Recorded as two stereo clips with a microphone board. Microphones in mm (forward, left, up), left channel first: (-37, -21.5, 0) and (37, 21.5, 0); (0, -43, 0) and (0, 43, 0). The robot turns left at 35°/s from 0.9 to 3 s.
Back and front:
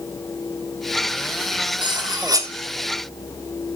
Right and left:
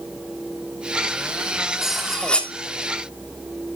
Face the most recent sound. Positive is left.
turn(degrees=-35)